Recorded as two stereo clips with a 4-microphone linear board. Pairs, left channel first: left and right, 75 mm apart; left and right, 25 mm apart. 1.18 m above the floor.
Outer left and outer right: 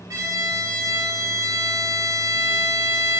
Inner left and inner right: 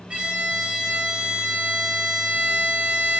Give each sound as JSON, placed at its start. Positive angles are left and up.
{"t": 0.1, "sound": "a violin", "side_deg": -45, "distance_m": 1.7}